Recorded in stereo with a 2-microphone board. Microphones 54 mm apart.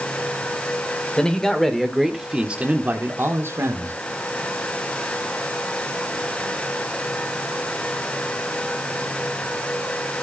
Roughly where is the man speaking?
Centre.